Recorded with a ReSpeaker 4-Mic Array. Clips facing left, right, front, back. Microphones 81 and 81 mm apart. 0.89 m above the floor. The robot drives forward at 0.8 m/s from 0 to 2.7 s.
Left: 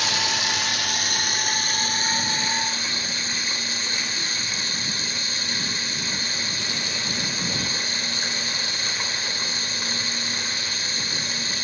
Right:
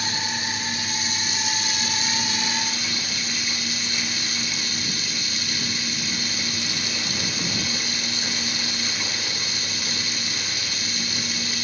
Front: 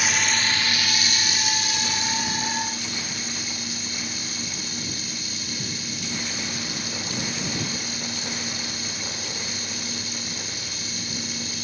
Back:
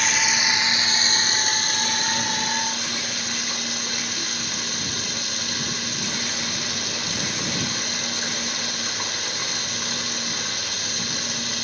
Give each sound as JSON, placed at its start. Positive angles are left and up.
{"t": 0.0, "sound": "running water", "azimuth_deg": 85, "distance_m": 1.2}